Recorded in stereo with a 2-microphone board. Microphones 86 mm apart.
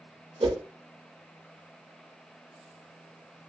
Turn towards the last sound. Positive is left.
turn(degrees=-75)  # may be behind; listen again after turning